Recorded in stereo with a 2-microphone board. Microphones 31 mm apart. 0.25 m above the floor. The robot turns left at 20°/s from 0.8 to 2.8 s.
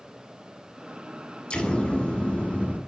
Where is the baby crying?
I don't hear a baby crying.